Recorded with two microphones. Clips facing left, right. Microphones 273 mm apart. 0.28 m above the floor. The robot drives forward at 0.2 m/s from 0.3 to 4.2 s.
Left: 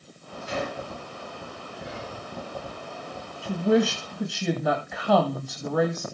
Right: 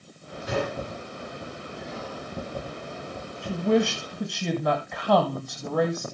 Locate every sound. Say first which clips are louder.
0.5 s a gunshot: right 3 dB; 75° right (ahead or behind), 6.5 m
1.8 s whispering: right 1 dB; 70° left (ahead or behind), 4.5 m
3.4 s a woman speaking: left 1 dB; 5° left (ahead or behind), 1.2 m; by 6.0 s centre (ahead or behind), 1.3 m